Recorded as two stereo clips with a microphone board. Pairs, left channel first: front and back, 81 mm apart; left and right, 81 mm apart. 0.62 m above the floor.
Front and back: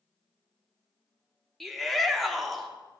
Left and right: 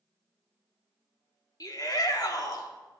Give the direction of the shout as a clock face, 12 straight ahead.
9 o'clock.